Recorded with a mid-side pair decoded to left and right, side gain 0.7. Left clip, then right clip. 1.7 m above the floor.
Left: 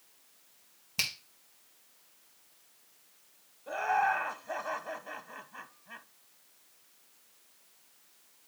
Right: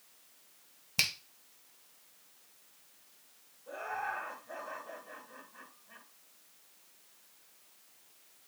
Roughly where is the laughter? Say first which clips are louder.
Left 9 dB; ahead left.